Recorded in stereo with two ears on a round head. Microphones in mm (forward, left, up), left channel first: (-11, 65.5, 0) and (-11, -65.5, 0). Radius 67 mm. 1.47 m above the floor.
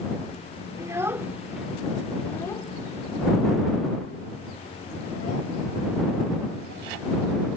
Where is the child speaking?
25° right (ahead or behind); by 7.6 s 70° left (ahead or behind).